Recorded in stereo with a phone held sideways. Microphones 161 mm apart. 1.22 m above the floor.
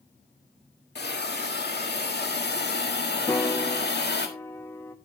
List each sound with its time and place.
0.9 s a hiss: 80° left, 1.7 m
3.3 s a piano: 15° left (ahead or behind), 0.8 m